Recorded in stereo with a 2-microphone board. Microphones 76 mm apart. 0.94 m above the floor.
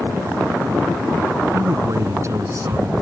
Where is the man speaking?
45° right (ahead or behind).